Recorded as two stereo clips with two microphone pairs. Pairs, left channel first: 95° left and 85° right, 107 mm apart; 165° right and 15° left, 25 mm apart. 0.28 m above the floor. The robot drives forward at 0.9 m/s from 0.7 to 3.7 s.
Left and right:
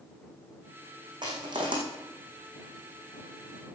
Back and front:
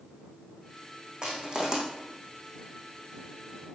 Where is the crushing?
35° right, 4 m; by 1.8 s 40° right, 4 m.